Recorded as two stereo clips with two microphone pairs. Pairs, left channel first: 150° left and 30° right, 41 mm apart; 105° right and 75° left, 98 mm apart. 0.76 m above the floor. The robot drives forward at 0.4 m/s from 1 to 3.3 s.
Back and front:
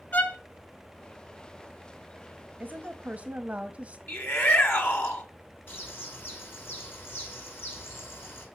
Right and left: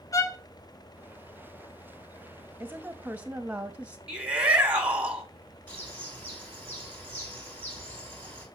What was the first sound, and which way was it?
A violin, 160° right.